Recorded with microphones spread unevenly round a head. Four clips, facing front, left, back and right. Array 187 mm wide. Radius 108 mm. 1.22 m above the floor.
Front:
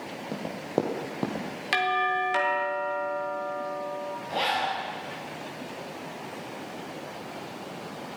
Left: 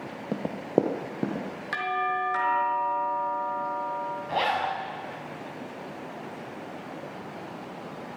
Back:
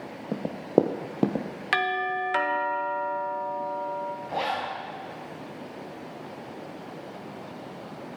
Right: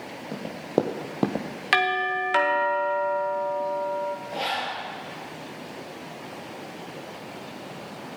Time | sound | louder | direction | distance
0.3 | running footsteps | left 1 dB, back 6 dB | 125° left | 1.6 m
1.7 | a doorbell | right 4 dB, front 1 dB | 110° right | 2 m
4.3 | a zipper | left 3 dB, front 3 dB | 75° left | 5 m